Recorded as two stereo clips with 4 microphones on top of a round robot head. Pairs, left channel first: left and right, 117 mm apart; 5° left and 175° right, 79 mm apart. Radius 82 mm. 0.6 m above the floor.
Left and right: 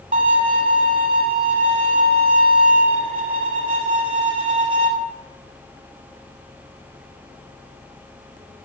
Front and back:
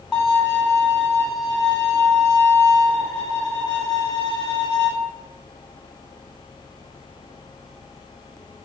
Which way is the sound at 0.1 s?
85° right.